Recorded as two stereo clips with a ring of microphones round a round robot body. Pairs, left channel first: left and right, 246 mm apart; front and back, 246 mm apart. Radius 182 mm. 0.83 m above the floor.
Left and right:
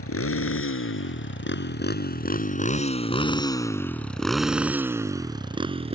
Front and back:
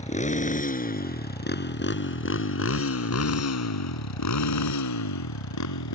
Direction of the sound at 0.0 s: 60° left.